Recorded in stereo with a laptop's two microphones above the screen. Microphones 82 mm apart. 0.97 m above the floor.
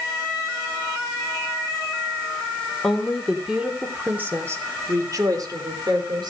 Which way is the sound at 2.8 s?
5° left (ahead or behind).